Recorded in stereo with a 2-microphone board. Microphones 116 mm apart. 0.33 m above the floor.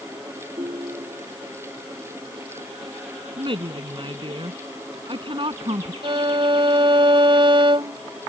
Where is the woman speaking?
50° right (ahead or behind).